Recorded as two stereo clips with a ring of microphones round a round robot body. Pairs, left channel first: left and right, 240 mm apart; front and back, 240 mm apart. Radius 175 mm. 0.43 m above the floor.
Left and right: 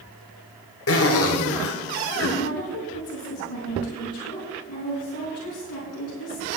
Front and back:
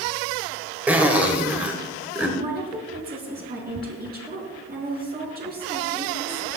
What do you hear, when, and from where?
0.9 s a zipper: 95° left, 1.8 m
2.4 s a woman speaking: 130° left, 5 m